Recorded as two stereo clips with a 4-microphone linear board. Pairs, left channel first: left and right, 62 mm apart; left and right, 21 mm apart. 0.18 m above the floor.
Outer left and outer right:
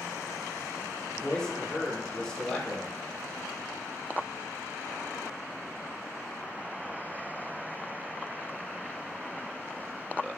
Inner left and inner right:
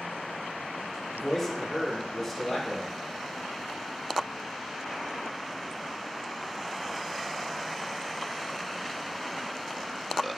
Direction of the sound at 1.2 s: 15° left (ahead or behind).